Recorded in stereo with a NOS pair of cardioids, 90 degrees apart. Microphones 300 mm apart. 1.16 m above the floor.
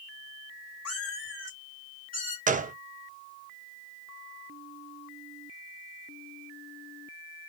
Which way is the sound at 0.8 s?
50° left.